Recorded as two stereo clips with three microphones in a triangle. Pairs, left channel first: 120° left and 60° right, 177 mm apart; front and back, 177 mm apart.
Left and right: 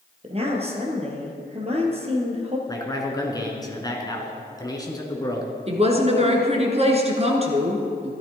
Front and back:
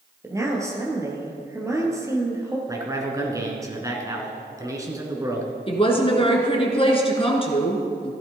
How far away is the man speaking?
About 1.6 m.